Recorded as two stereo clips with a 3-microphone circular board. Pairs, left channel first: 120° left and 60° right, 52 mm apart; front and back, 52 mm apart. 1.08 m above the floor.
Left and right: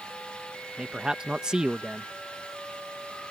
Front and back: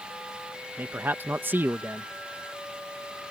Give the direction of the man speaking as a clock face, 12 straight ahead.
4 o'clock.